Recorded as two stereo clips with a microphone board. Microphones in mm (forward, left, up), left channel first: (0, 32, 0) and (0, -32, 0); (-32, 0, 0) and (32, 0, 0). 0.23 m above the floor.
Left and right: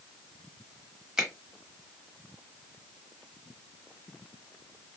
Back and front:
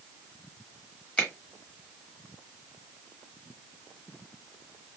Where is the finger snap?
150° right, 1.0 m.